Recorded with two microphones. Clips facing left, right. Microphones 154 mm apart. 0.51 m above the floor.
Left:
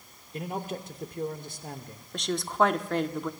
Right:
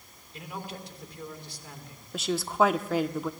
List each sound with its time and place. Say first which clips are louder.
0.3 s a man speaking: left 6 dB; 45° left (ahead or behind), 1.2 m
2.1 s a woman speaking: right 1 dB; 5° right (ahead or behind), 0.7 m